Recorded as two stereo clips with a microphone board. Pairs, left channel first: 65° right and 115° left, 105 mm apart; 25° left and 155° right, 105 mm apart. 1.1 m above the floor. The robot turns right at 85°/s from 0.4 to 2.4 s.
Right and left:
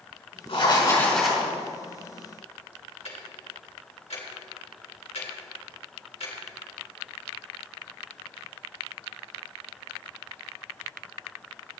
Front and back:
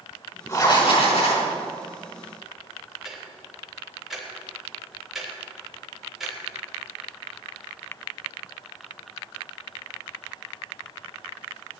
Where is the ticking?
70° right, 3.5 m.